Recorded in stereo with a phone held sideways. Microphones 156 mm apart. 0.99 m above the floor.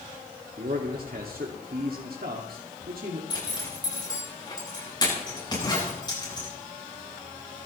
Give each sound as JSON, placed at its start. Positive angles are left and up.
{"t": 0.6, "sound": "a man speaking", "side_deg": -80, "distance_m": 1.9}
{"t": 3.3, "sound": "a zipper", "side_deg": 30, "distance_m": 9.0}